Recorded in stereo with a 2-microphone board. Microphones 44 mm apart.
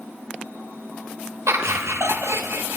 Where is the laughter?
80° right, 1.0 m.